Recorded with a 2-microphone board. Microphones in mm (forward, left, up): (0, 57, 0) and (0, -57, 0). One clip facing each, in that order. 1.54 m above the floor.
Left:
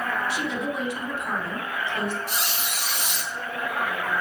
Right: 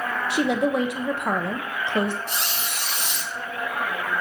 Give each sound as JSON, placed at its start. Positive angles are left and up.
{"t": 0.3, "sound": "a woman speaking", "side_deg": -70, "distance_m": 0.9}
{"t": 2.3, "sound": "a squeak", "side_deg": 5, "distance_m": 2.0}